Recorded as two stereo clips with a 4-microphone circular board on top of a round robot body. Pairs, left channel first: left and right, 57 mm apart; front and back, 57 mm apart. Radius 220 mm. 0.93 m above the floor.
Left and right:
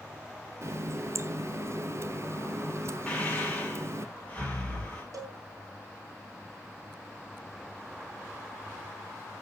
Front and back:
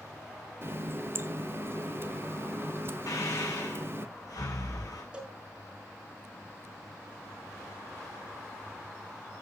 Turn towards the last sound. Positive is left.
turn(degrees=-110)